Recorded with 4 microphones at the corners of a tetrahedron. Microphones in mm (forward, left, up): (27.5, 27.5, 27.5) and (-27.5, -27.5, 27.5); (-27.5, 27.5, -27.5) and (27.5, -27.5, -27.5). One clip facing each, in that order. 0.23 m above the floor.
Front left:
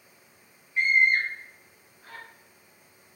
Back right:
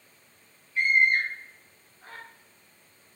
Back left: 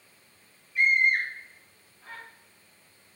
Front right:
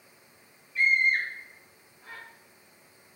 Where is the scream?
80° left, 1.3 m; by 2.2 s 125° right, 1.4 m.